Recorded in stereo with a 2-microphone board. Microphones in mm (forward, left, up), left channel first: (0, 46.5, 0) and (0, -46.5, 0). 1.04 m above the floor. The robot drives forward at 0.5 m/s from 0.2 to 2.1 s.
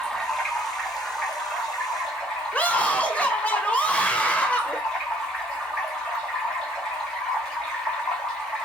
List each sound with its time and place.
0.0 s running water: 5° left (ahead or behind), 0.8 m; by 8.7 s centre (ahead or behind), 1.6 m
2.5 s a scream: 15° left (ahead or behind), 0.6 m